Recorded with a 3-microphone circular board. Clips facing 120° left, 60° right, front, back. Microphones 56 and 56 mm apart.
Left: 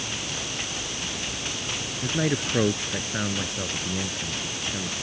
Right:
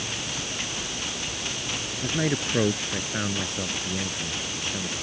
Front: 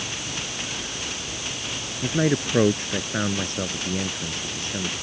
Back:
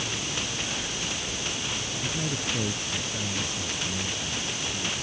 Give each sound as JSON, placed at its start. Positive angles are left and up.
{"t": 2.0, "sound": "a man speaking", "azimuth_deg": 30}